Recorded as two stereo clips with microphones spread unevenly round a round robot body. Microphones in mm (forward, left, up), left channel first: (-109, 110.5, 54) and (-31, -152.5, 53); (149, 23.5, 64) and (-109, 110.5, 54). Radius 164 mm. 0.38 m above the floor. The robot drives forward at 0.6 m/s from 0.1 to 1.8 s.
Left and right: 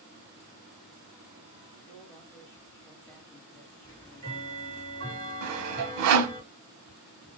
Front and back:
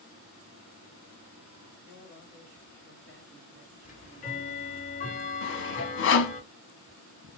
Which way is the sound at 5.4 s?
60° right.